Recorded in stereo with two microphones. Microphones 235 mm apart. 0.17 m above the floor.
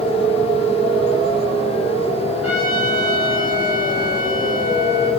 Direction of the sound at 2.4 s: 10° right (ahead or behind).